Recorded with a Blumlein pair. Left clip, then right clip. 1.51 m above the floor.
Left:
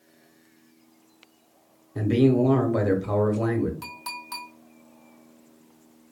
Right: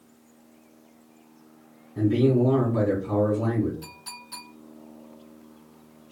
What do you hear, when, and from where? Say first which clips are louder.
1.9 s a man speaking: left 1 dB; 60° left, 1.2 m
3.8 s a clink: left 6 dB; 60° left, 1.5 m